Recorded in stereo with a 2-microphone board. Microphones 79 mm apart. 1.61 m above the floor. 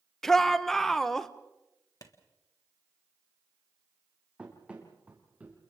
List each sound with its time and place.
0.2 s a shout: 5° left (ahead or behind), 1.2 m
2.0 s a clap: 50° left (ahead or behind), 1.8 m
4.4 s running footsteps: 15° right (ahead or behind), 3.5 m; by 5.6 s 20° right (ahead or behind), 3 m